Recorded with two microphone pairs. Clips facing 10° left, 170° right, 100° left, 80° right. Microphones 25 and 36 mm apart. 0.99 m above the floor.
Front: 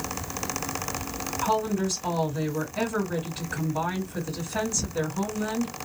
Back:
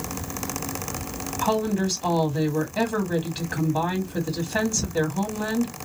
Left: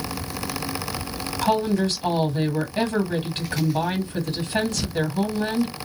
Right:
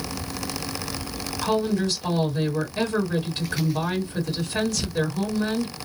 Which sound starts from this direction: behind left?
A woman speaking, at 1.4 s.